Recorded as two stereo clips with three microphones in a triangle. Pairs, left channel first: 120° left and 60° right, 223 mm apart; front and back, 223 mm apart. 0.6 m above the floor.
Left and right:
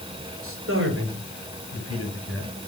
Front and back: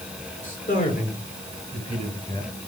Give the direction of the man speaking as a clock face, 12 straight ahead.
2 o'clock.